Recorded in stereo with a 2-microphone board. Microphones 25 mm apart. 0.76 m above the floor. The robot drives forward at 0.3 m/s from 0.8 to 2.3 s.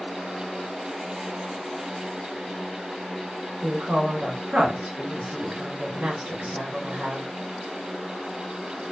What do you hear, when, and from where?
3.6 s a woman speaking: 65° right (ahead or behind), 1.0 m